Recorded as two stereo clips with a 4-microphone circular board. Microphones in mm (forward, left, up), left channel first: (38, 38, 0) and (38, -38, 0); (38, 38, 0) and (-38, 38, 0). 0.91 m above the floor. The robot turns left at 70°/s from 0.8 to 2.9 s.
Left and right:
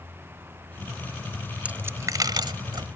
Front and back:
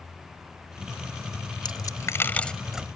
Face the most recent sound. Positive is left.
turn(degrees=-105)